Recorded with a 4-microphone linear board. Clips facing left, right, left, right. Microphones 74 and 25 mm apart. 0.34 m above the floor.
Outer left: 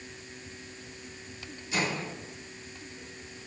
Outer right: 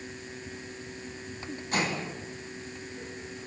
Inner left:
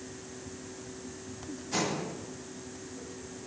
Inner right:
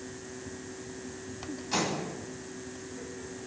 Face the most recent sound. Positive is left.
turn(degrees=-50)  # may be behind; listen again after turning